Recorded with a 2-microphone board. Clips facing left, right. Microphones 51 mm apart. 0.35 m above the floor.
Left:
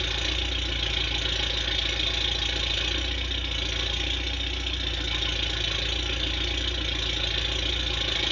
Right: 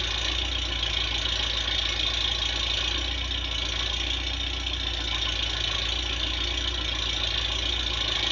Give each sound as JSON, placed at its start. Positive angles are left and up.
{"t": 0.0, "sound": "an engine running", "side_deg": 20, "distance_m": 2.0}